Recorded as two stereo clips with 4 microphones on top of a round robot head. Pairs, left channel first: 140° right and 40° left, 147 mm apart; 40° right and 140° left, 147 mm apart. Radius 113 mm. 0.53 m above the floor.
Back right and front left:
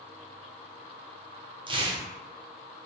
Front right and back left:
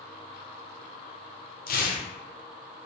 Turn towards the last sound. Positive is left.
turn(degrees=-15)